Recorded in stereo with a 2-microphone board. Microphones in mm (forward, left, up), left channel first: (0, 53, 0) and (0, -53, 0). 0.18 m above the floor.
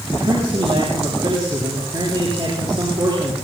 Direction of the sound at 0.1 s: 50° right (ahead or behind).